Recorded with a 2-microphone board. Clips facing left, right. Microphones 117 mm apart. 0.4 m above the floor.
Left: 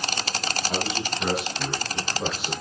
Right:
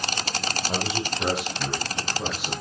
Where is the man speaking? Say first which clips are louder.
Even; 30° right (ahead or behind), 1.4 m; by 2.5 s 20° right (ahead or behind), 3.5 m.